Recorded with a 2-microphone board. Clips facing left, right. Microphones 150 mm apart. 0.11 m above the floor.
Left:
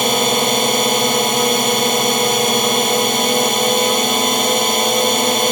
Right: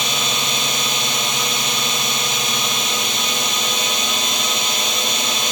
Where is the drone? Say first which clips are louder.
Left 10 dB; 55° left (ahead or behind).